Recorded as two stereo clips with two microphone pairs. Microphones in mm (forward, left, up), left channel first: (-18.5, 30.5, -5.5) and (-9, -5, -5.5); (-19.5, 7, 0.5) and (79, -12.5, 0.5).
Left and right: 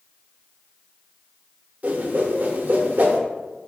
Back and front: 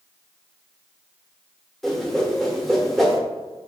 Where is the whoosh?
100° right, 0.7 m.